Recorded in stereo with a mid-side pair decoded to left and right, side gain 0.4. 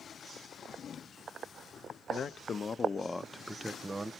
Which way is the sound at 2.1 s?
60° left.